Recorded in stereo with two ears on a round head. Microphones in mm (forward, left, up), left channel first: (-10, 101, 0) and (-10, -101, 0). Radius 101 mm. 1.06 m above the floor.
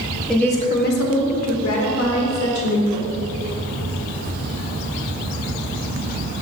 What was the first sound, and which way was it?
A woman speaking, 5° right (ahead or behind).